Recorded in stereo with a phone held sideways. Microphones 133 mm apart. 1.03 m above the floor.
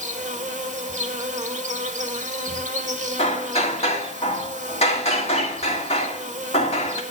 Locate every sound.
0.0 s an insect: 65° right (ahead or behind), 1.3 m
3.2 s hammering: 50° left (ahead or behind), 2.0 m